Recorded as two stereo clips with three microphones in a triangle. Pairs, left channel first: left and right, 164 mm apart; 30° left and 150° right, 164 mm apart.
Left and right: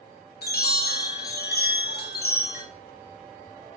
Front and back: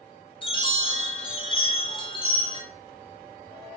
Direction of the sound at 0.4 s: 85° left.